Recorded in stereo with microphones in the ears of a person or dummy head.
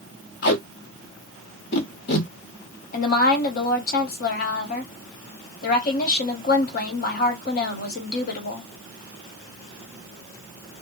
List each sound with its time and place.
0.4 s tape being pulled: 60° left (ahead or behind), 0.9 m
2.9 s a woman speaking: 55° left (ahead or behind), 1.0 m